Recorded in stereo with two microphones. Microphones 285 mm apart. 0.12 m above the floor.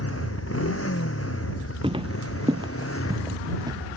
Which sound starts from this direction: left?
A motorcycle, at 0.0 s.